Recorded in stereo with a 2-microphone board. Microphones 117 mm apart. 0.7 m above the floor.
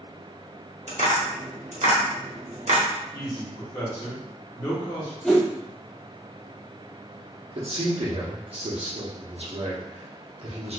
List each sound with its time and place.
0.9 s tapping: 75° right (ahead or behind), 1.1 m
3.1 s a man speaking: 30° left (ahead or behind), 1.2 m
5.2 s a whoosh: centre (ahead or behind), 1.3 m
7.5 s a man speaking: 60° right (ahead or behind), 1.0 m